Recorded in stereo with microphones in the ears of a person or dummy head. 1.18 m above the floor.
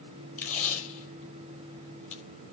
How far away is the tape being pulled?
About 6.5 m.